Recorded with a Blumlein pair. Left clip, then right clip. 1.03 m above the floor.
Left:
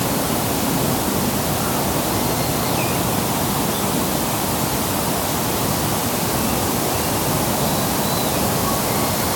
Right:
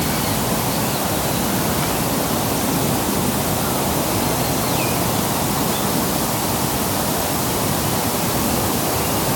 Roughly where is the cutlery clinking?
No cutlery clinking in this recording.